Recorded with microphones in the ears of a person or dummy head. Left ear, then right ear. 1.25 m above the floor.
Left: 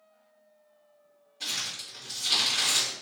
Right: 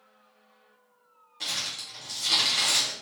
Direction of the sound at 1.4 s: 45° right (ahead or behind).